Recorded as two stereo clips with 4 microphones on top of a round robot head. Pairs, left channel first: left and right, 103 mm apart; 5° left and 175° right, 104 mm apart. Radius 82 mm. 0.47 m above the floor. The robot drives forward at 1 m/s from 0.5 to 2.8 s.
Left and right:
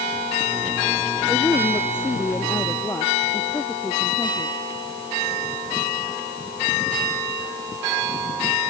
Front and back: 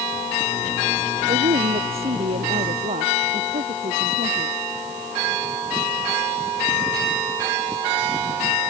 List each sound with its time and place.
1.3 s a woman speaking: 165° left